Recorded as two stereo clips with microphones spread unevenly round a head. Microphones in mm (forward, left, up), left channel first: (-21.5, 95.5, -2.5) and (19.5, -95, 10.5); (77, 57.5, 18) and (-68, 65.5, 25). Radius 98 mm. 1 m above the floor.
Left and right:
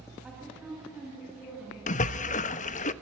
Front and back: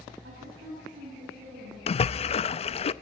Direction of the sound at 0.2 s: 165° right.